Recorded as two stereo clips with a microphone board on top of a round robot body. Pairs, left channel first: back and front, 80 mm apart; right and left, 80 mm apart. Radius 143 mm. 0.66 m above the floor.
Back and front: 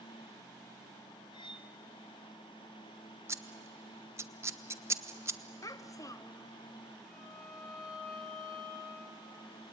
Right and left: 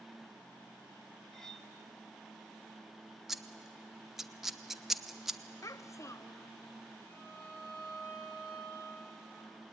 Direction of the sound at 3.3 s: 10° left.